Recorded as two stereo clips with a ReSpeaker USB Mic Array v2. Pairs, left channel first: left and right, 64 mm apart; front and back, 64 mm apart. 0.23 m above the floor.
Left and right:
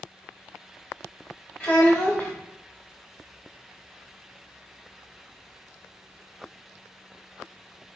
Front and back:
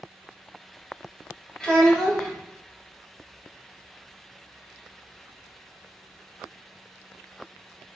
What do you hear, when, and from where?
1.6 s a child speaking: 65° left, 0.9 m